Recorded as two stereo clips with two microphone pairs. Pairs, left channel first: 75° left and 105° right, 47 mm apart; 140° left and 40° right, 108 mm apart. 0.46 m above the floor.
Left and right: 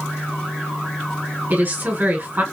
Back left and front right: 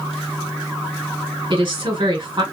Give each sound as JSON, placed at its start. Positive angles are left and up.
{"t": 1.5, "sound": "a woman speaking", "azimuth_deg": -75, "distance_m": 1.8}